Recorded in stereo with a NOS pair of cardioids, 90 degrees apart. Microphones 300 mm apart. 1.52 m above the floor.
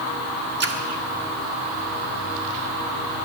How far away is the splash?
About 1.5 m.